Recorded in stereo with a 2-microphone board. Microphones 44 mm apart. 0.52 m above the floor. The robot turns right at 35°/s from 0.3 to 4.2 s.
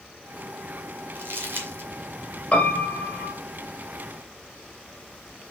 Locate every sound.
1.1 s crumpling: 50° right (ahead or behind), 2 m; by 1.9 s 55° right (ahead or behind), 2 m
2.5 s a piano: 25° left (ahead or behind), 2 m; by 3.3 s 55° left (ahead or behind), 2 m